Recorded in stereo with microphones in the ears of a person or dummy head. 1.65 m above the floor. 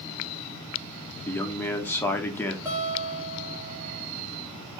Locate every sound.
1.3 s a man speaking: 10° left (ahead or behind), 0.6 m
2.6 s a guitar: 25° right (ahead or behind), 1.2 m